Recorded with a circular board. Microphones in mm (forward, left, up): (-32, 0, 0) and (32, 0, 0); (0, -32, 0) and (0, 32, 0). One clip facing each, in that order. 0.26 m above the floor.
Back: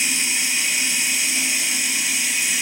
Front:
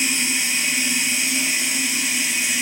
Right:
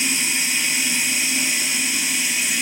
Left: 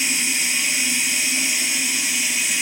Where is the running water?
40° right, 1.1 m.